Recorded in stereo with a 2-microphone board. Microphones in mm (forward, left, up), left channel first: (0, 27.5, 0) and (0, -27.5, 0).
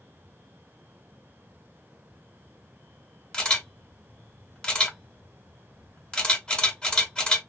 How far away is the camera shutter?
About 1.4 m.